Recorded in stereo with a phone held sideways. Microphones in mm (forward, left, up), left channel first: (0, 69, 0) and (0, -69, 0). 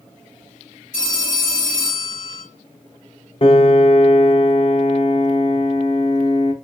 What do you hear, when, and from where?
0.9 s a phone ringing: 70° left (ahead or behind), 2 m
3.4 s a piano: 40° left (ahead or behind), 0.7 m